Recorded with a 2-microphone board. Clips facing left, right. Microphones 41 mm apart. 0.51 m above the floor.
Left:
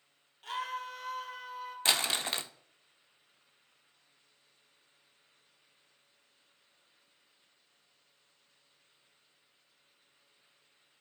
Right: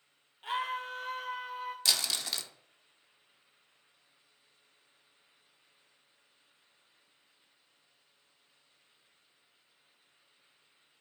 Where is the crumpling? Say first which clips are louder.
Left 4 dB; 30° left (ahead or behind), 0.5 m.